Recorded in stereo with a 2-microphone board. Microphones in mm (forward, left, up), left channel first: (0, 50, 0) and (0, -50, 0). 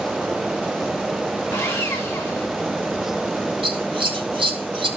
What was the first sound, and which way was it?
Sawing, 25° left (ahead or behind).